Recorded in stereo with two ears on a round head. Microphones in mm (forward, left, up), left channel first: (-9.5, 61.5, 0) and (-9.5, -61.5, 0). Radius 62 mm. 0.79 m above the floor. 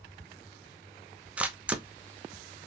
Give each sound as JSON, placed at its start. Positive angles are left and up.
{"t": 1.4, "sound": "a camera shutter", "side_deg": -10, "distance_m": 0.6}